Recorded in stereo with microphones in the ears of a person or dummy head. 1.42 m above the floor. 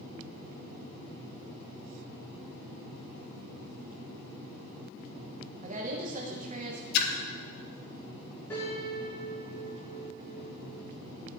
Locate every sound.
5.6 s a woman speaking: 40° right (ahead or behind), 1.4 m
6.9 s a splash: 60° left (ahead or behind), 1.1 m
8.5 s a piano: 15° left (ahead or behind), 4.5 m